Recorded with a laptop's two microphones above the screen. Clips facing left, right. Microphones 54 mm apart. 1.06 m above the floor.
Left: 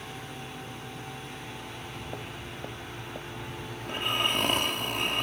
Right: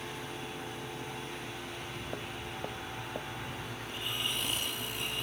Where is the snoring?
65° left (ahead or behind).